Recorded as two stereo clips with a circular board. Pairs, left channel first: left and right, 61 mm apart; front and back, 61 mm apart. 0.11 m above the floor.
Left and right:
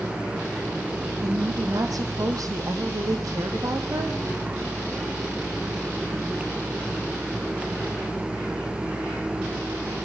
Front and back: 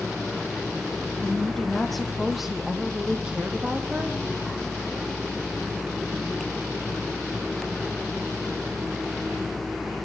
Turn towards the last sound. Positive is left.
turn(degrees=-115)